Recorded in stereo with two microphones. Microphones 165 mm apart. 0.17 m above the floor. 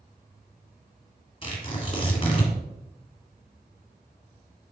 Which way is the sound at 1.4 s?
35° left (ahead or behind).